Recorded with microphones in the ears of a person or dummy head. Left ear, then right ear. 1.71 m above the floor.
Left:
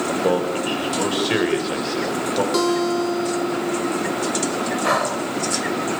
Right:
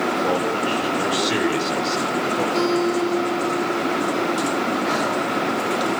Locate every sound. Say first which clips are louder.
0.1 s a man speaking: even; 15° left (ahead or behind), 7 m
2.5 s a guitar: even; 65° left (ahead or behind), 2 m
4.8 s breathing: left 2 dB; 45° left (ahead or behind), 5 m